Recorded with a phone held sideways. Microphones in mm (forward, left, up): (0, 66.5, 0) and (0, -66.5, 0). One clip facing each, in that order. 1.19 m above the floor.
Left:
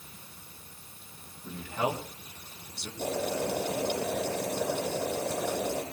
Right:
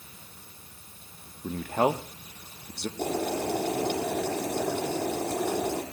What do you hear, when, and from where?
1.4 s a man speaking: 55° right (ahead or behind), 1.9 m
3.0 s boiling: 60° right (ahead or behind), 8.5 m